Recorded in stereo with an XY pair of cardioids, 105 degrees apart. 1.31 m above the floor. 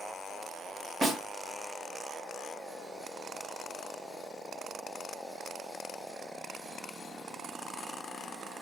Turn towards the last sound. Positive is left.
turn(degrees=-35)